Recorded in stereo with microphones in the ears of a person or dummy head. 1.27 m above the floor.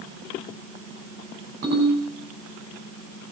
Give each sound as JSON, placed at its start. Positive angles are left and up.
{"t": 1.6, "sound": "a ringtone", "side_deg": -45, "distance_m": 5.5}